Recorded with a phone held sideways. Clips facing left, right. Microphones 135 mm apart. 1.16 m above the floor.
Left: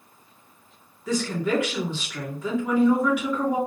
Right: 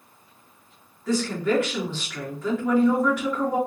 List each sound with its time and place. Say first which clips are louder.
1.1 s a woman speaking: right 1 dB; 15° left (ahead or behind), 2.5 m